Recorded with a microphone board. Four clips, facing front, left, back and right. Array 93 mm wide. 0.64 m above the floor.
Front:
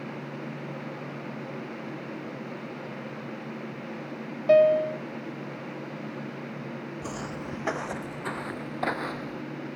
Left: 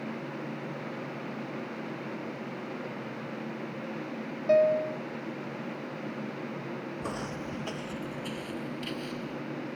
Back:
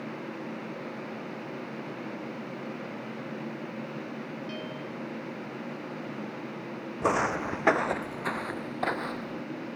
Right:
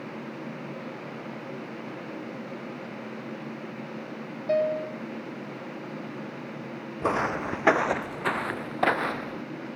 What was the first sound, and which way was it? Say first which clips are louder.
A piano: left 2 dB, front 19 dB; 10° left.